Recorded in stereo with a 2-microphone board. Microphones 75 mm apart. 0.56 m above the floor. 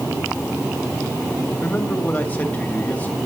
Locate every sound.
1.6 s a man speaking: 20° left (ahead or behind), 3 m